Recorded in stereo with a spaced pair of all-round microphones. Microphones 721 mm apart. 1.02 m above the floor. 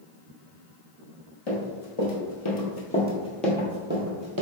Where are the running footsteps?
50° left (ahead or behind), 1.8 m; by 4.4 s 30° right (ahead or behind), 1.3 m.